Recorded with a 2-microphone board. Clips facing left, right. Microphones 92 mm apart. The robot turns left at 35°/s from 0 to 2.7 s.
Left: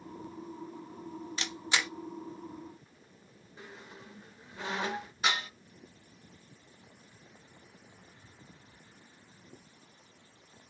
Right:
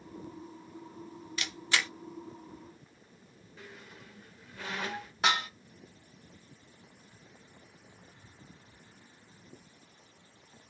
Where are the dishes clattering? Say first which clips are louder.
Right 4 dB; 65° right (ahead or behind), 1.5 m.